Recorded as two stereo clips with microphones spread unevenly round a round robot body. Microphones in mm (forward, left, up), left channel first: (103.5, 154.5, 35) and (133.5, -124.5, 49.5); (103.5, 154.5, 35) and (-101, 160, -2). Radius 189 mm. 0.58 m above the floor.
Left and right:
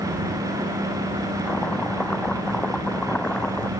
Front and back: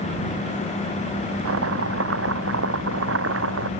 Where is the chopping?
175° right.